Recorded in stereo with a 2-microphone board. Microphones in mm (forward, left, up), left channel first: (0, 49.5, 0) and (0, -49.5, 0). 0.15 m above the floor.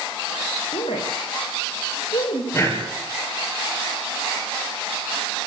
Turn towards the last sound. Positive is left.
turn(degrees=25)  # may be behind; listen again after turning